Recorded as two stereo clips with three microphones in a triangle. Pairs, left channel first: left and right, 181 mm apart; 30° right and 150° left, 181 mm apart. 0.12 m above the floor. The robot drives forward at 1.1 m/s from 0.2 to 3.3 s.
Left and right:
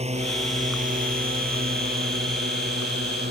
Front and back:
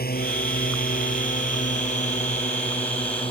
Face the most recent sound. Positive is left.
turn(degrees=-85)